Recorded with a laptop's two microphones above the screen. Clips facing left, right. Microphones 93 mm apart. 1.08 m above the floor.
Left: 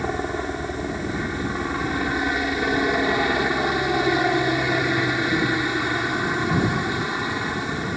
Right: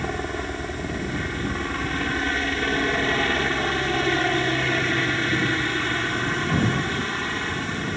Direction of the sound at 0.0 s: 10° left (ahead or behind).